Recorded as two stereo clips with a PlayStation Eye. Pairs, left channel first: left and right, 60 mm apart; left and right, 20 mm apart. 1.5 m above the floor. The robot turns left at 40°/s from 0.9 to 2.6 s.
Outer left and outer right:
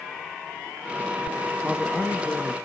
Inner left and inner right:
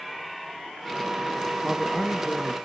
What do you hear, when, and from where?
1.6 s a man speaking: straight behind, 1.8 m; by 2.6 s 140° left, 1.8 m